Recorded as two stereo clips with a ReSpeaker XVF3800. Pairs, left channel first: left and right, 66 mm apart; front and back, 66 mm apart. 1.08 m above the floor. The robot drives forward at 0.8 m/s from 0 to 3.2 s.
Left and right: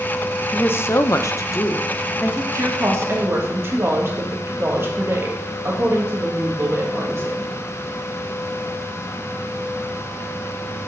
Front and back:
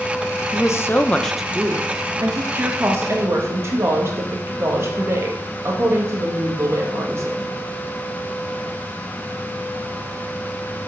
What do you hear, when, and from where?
0.5 s a woman speaking: 30° left, 0.8 m; by 2.4 s 155° left, 1.0 m
2.5 s a woman speaking: 125° right, 1.4 m; by 7.6 s 140° right, 1.7 m